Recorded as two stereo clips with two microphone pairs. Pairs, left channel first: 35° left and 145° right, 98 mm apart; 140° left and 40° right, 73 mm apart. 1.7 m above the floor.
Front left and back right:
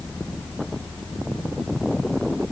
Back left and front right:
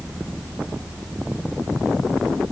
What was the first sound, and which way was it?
Only background noise.